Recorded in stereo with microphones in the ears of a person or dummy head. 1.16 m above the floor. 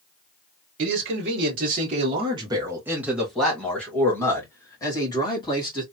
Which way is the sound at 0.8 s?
65° right (ahead or behind).